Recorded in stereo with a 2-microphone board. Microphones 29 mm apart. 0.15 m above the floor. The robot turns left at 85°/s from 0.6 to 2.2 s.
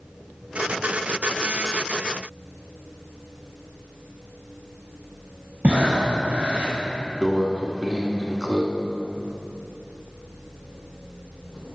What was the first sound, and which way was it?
Breathing, 50° right (ahead or behind).